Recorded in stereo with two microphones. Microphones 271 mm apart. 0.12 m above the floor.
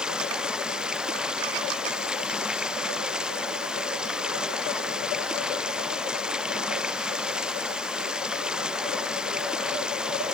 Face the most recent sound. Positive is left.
turn(degrees=-5)  # may be behind; listen again after turning